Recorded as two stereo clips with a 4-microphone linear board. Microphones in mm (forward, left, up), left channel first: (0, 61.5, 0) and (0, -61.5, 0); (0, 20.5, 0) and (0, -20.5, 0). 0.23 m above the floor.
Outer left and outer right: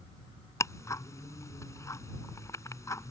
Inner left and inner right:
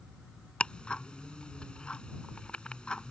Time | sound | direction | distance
0.6 | ticking | 25° left (ahead or behind) | ?